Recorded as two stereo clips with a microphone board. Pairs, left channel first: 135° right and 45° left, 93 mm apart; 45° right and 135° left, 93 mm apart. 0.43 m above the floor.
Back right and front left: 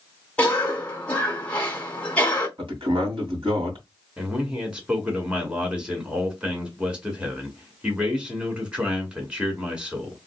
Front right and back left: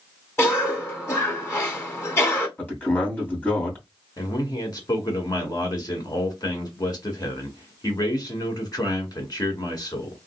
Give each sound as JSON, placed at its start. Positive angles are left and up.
{"t": 0.4, "sound": "a cough", "azimuth_deg": -70, "distance_m": 1.3}
{"t": 2.6, "sound": "a man speaking", "azimuth_deg": 25, "distance_m": 2.5}
{"t": 4.2, "sound": "a man speaking", "azimuth_deg": -30, "distance_m": 1.8}